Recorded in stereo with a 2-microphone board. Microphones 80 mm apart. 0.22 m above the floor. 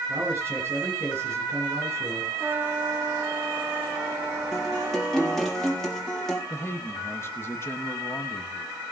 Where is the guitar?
5° left (ahead or behind), 3.5 m.